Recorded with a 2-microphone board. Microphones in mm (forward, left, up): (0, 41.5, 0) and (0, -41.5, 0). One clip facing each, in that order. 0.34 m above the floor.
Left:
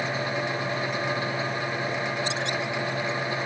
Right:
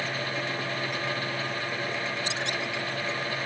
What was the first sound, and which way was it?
Only background noise.